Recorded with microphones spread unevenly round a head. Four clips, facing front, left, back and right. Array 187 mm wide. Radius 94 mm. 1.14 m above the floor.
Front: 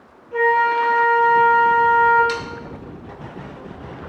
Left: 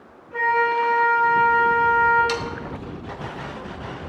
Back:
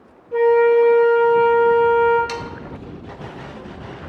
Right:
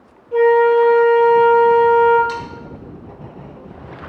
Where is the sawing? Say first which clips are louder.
Right 1 dB, front 3 dB; 135° left, 0.9 m.